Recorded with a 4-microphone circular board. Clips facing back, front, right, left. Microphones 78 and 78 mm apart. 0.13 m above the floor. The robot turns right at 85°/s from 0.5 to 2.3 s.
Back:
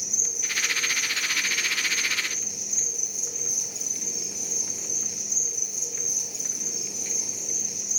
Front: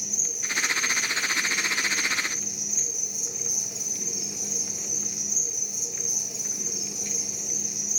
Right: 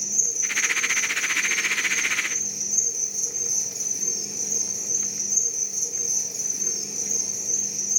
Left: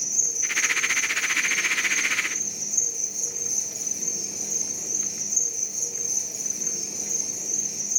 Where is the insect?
170° left, 1.2 m; by 8.0 s 40° right, 1.2 m.